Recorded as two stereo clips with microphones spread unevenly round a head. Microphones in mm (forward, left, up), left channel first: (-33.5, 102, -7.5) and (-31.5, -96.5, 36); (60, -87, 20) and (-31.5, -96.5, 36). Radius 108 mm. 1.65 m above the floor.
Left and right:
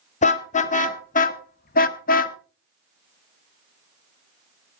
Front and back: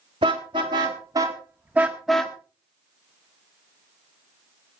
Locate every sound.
0.2 s a car horn: 145° left, 2.5 m; by 2.4 s 95° left, 1.1 m